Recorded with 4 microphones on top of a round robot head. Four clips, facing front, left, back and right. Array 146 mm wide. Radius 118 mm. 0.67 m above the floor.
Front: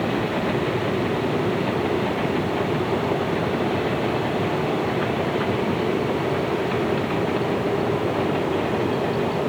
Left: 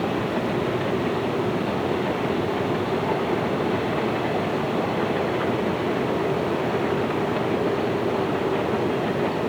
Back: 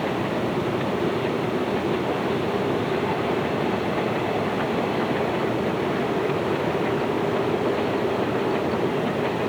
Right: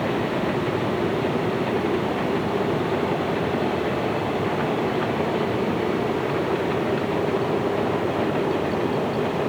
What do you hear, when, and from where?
Only background noise.